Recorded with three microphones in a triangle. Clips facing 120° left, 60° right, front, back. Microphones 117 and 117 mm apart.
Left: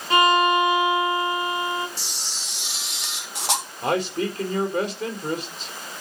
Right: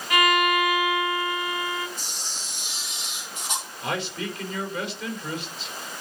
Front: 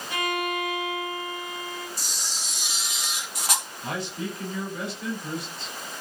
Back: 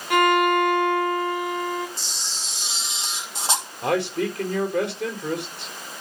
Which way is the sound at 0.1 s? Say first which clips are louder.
Left 4 dB, back 10 dB; 175° left.